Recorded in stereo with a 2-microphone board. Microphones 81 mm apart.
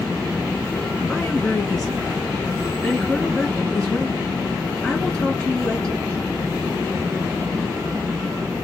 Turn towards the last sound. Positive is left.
turn(degrees=5)  # may be behind; listen again after turning